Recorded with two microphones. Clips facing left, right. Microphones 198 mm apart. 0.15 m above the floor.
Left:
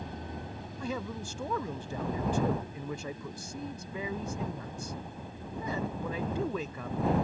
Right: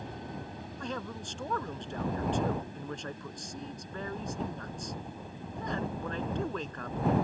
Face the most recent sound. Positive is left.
turn(degrees=10)  # may be behind; listen again after turning